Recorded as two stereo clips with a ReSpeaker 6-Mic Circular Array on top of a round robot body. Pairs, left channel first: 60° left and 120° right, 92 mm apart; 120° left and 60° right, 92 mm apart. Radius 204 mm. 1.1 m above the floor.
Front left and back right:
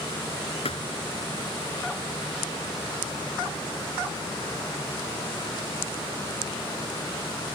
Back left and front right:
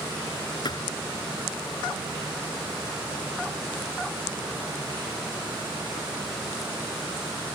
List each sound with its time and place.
0.7 s a thud: 75° left